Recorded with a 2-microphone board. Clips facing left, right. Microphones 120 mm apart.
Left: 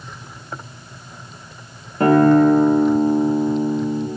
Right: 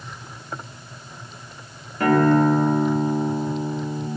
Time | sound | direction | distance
2.0 | a guitar | 30° left (ahead or behind) | 1.6 m